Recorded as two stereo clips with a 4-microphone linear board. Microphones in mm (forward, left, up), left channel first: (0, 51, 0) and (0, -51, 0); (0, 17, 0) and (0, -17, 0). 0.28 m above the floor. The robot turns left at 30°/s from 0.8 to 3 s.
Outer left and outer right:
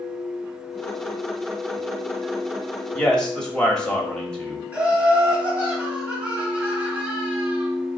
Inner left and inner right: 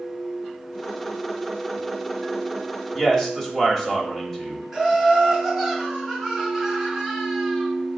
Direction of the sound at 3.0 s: 10° left (ahead or behind).